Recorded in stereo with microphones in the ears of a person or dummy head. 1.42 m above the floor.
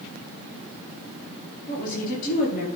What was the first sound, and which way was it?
A woman speaking, 45° left (ahead or behind).